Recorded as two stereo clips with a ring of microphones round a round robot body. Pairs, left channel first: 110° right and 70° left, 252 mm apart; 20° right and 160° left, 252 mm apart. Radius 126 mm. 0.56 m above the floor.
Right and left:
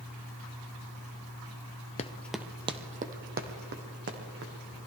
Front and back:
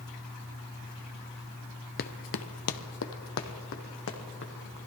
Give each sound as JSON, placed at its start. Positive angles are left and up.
{"t": 2.0, "sound": "running footsteps", "azimuth_deg": -60, "distance_m": 0.7}